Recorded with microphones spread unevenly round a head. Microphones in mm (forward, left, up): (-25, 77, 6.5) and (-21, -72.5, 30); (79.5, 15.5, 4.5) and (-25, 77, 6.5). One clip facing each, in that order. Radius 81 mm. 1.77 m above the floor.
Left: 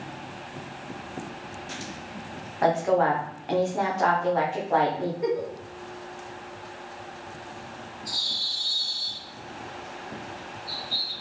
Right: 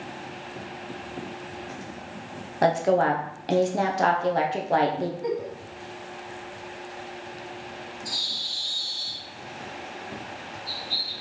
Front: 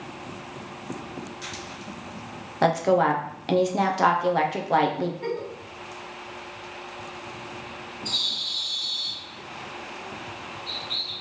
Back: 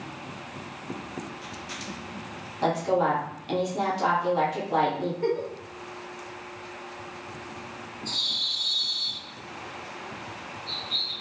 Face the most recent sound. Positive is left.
turn(degrees=-65)